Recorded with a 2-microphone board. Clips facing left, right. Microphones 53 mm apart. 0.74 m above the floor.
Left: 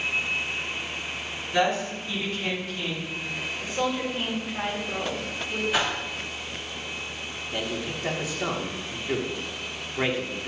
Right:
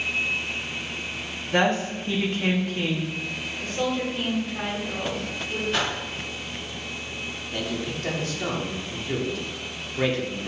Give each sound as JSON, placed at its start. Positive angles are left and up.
{"t": 1.5, "sound": "a woman speaking", "side_deg": -45, "distance_m": 1.4}
{"t": 3.6, "sound": "a woman speaking", "side_deg": 10, "distance_m": 1.9}
{"t": 5.7, "sound": "a whoosh", "side_deg": 10, "distance_m": 1.6}
{"t": 7.5, "sound": "a man speaking", "side_deg": 15, "distance_m": 1.2}